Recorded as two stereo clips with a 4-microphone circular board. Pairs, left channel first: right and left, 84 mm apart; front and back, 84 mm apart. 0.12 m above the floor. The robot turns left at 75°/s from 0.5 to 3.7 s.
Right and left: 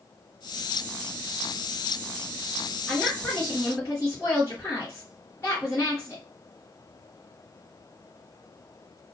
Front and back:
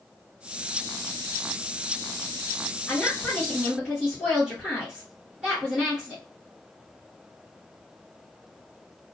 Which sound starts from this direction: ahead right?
A woman speaking, at 2.9 s.